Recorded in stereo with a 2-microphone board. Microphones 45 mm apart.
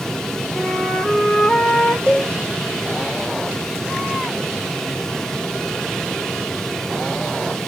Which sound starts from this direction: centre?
A flute, at 0.6 s.